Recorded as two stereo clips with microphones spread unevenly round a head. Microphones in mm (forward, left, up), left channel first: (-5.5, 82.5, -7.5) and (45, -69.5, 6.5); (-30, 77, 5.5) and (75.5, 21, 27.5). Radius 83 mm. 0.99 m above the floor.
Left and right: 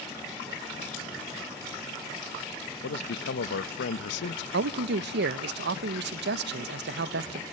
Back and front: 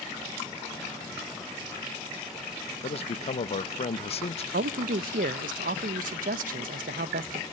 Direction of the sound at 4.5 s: 55° right.